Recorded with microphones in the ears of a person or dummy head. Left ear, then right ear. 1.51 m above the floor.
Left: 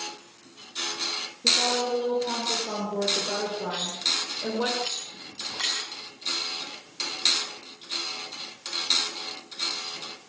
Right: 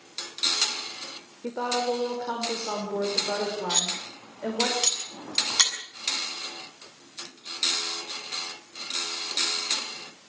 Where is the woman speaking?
65° right (ahead or behind), 5.5 m; by 4.7 s 20° right (ahead or behind), 6 m.